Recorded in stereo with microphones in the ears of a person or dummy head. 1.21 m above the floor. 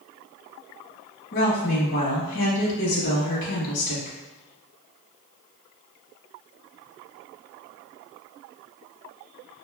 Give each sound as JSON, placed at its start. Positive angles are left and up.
{"t": 1.3, "sound": "a woman speaking", "side_deg": 60, "distance_m": 0.9}